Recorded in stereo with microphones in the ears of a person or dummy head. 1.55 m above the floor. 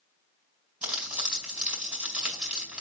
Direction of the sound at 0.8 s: 5° right (ahead or behind).